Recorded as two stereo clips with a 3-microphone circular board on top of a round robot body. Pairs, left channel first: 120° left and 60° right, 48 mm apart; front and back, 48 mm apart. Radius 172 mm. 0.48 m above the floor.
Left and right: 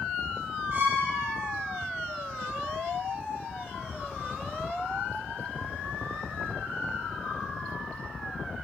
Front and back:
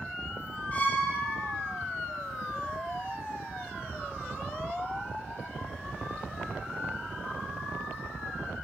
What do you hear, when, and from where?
0.7 s a violin: 50° right, 1.3 m